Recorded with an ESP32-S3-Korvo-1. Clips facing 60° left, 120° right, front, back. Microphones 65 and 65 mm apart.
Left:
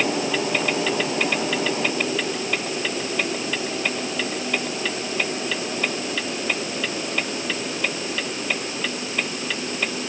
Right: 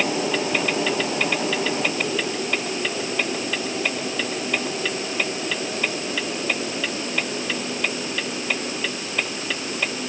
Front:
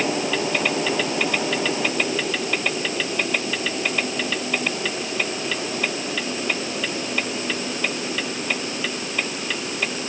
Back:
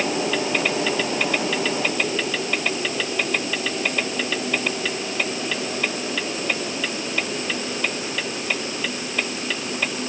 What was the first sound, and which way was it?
Only background noise.